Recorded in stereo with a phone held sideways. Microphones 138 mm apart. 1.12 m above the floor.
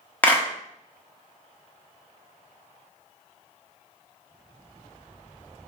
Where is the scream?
I don't hear a scream.